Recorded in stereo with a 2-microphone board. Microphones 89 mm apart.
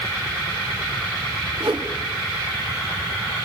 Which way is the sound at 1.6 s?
70° right (ahead or behind).